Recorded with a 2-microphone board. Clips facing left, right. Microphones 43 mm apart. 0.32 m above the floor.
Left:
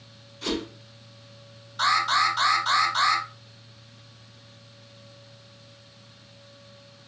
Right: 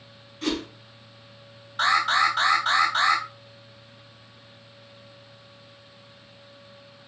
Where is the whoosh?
35° right (ahead or behind), 3 m.